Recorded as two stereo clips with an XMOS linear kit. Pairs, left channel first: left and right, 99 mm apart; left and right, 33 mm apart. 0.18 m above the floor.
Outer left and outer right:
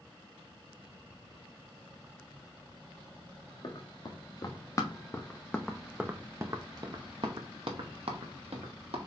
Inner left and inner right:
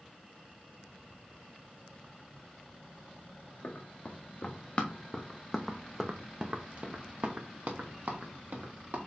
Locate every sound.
3.6 s running footsteps: 45° left (ahead or behind), 1.5 m; by 9.0 s 80° right, 1.7 m